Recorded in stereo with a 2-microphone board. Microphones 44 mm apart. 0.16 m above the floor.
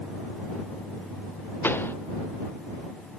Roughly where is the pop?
Left.